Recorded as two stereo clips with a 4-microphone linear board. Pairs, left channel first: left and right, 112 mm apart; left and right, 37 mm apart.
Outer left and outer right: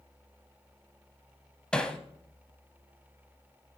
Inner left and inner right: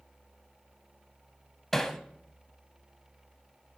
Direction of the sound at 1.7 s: 10° left (ahead or behind).